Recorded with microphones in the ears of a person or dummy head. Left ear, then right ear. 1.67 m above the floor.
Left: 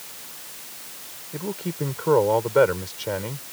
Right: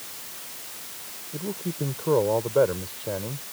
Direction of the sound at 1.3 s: 70° left (ahead or behind).